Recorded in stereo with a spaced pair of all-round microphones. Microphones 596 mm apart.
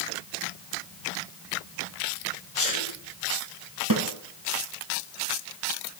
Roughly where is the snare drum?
Right.